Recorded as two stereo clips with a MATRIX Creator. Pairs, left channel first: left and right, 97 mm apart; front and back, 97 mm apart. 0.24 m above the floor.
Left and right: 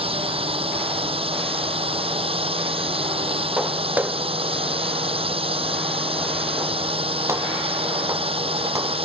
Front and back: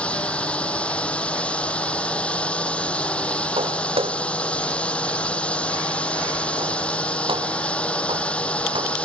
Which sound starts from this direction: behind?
Footsteps, at 3.6 s.